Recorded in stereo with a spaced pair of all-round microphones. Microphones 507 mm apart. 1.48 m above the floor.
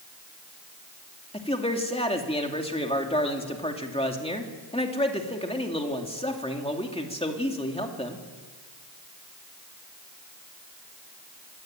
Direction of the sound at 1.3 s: 10° left (ahead or behind).